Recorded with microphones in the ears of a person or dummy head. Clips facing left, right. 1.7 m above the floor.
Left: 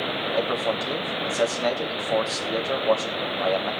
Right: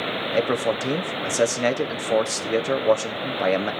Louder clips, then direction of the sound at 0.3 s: Right 4 dB; 35° right (ahead or behind).